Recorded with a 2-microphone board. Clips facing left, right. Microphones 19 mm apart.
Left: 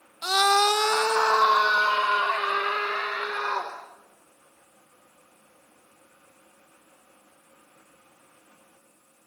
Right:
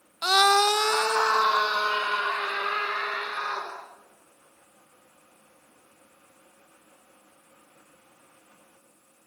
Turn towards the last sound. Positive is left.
turn(degrees=65)  # may be behind; listen again after turning